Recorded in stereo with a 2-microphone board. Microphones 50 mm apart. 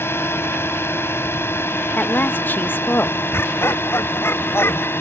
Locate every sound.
0.0 s a drone: 50° left (ahead or behind); by 5.0 s 45° left (ahead or behind)
2.0 s a woman speaking: 40° left (ahead or behind)
3.3 s laughter: 55° left (ahead or behind)